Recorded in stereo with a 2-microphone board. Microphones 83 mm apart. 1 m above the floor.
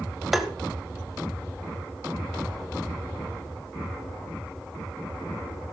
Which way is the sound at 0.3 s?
Centre (ahead or behind).